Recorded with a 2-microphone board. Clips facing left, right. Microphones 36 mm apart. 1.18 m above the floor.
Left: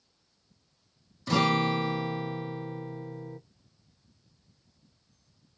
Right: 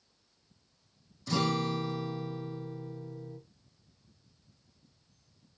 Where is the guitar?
35° left (ahead or behind), 0.5 m.